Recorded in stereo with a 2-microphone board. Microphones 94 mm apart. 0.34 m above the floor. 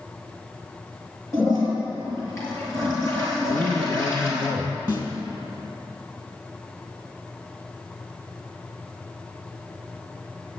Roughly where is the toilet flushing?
Left.